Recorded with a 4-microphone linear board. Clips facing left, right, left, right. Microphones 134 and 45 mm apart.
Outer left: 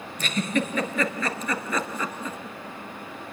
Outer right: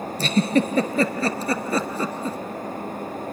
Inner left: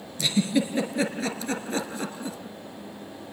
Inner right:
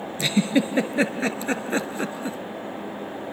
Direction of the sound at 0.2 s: 35° right (ahead or behind).